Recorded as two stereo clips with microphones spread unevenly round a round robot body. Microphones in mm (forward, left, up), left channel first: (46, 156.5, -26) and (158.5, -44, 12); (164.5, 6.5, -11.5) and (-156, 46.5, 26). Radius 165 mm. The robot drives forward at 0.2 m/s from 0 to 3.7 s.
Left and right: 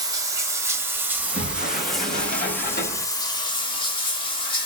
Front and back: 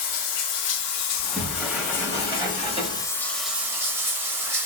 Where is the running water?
5° left, 0.8 m; by 4.7 s 155° left, 0.5 m.